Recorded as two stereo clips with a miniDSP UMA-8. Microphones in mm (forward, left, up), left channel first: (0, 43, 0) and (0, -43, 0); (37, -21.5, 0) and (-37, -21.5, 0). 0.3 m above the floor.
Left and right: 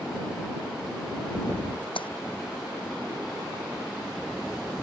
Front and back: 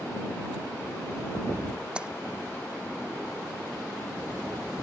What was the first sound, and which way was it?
A splash, 105° left.